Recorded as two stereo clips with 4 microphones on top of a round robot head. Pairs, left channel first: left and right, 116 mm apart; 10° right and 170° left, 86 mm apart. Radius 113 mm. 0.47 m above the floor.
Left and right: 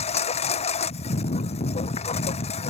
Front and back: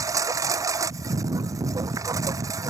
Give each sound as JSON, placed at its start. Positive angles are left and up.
{"t": 0.0, "sound": "a lawn mower", "azimuth_deg": 120}